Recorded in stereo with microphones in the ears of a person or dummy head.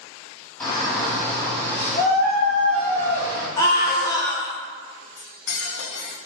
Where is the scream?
20° left (ahead or behind), 0.6 m.